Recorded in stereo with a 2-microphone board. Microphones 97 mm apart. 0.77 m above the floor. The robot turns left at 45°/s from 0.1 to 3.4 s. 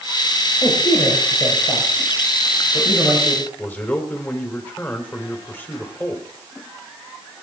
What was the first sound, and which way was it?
A man speaking, 40° left (ahead or behind).